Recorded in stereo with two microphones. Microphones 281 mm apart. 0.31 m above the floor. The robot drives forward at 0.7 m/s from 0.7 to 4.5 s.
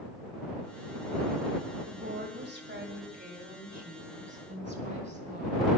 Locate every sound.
1.9 s a woman speaking: 45° right (ahead or behind), 1.9 m; by 5.8 s 30° right (ahead or behind), 3 m